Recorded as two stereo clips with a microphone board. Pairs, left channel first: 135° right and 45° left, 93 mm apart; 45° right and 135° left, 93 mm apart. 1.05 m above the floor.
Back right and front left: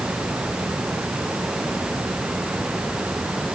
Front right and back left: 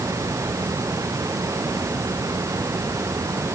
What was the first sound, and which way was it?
Only background noise.